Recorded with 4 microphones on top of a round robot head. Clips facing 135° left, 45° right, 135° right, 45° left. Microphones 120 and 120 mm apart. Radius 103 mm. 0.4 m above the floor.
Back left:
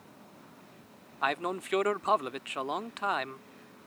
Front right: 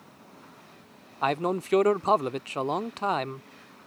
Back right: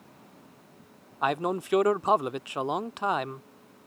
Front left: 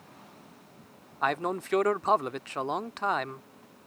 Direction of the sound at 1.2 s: 65° right.